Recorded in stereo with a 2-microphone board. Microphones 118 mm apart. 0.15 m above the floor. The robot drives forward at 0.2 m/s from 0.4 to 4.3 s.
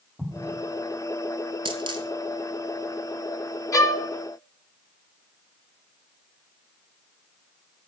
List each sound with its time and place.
0.2 s an explosion: 5° right (ahead or behind), 1.6 m
1.6 s a dropped coin: 45° right (ahead or behind), 0.9 m; by 2.1 s 40° right (ahead or behind), 1.0 m
3.7 s a violin: 30° left (ahead or behind), 0.7 m